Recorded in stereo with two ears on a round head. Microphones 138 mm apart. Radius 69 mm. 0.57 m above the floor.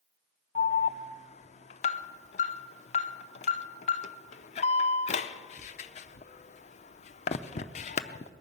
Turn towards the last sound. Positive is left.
turn(degrees=50)  # may be behind; listen again after turning